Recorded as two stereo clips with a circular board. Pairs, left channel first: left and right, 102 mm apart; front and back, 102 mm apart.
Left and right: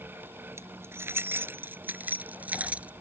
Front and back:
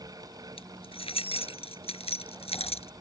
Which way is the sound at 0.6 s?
25° right.